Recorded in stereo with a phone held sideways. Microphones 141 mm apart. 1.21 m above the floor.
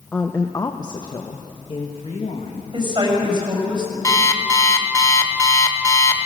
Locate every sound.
0.1 s a woman speaking: 10° left (ahead or behind), 0.7 m; by 2.6 s 50° left (ahead or behind), 2 m
2.7 s a woman speaking: 35° right (ahead or behind), 6.5 m
4.0 s an alarm clock: 25° left (ahead or behind), 1.4 m